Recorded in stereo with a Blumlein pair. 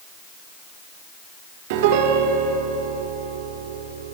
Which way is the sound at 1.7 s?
50° right.